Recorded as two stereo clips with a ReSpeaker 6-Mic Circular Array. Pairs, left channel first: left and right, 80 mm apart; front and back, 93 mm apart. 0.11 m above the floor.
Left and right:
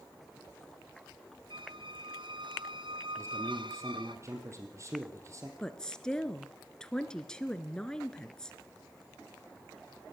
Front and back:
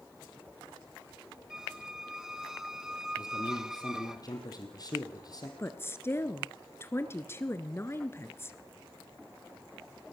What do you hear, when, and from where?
1.5 s a squeak: 95° right, 1.2 m
3.2 s a man speaking: 40° right, 3 m
5.6 s a woman speaking: 20° left, 1.3 m